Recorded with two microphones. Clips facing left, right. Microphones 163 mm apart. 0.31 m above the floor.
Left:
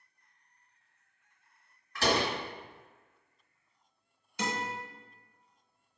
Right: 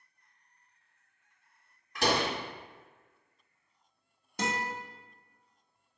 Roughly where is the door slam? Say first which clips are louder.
Even; centre.